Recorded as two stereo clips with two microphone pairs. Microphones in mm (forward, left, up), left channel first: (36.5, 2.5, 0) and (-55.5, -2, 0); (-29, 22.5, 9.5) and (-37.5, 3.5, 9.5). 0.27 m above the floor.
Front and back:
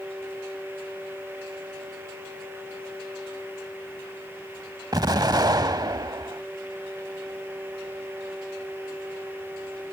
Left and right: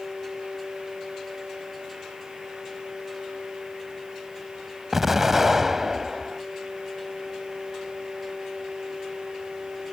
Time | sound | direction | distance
4.9 | an explosion | straight behind | ?